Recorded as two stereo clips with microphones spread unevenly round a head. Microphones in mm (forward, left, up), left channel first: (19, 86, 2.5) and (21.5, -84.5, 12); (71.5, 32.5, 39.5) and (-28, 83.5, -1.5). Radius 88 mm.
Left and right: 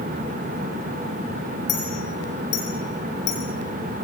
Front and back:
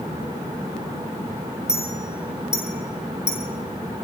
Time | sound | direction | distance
1.7 | a clink | 70° left | 8 m